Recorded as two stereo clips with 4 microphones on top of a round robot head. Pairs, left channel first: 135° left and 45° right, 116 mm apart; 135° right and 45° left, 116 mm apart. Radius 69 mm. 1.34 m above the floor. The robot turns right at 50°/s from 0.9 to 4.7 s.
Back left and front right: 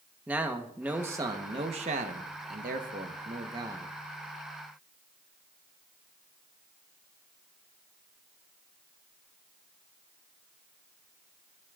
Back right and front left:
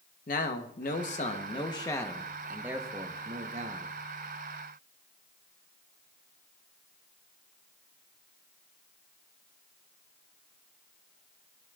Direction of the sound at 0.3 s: 120° right.